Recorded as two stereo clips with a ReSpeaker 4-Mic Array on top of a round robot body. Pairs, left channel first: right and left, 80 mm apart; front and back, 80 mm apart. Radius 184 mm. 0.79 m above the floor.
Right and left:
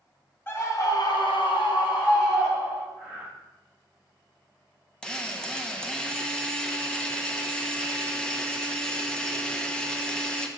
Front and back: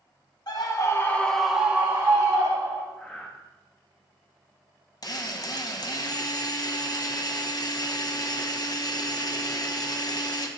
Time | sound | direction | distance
0.5 | a scream | 30° right | 1.7 m
3.0 | breathing | 65° right | 2 m
5.0 | a drill | 15° right | 1.2 m